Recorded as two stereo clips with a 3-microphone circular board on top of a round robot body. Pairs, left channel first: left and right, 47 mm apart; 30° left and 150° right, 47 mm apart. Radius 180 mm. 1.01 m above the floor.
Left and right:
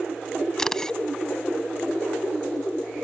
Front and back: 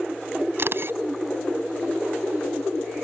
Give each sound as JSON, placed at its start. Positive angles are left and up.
{"t": 0.6, "sound": "a camera shutter", "azimuth_deg": 170}